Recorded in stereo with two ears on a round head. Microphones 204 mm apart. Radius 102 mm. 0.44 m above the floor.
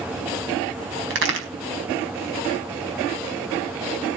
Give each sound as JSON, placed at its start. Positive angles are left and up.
{"t": 1.1, "sound": "a crack", "side_deg": -60, "distance_m": 4.5}